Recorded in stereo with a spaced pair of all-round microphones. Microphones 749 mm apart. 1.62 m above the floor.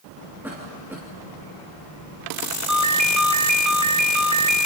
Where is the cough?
5° right (ahead or behind), 3 m.